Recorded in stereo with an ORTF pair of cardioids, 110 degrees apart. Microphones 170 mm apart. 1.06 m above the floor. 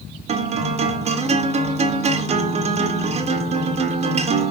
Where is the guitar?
40° right, 1.4 m.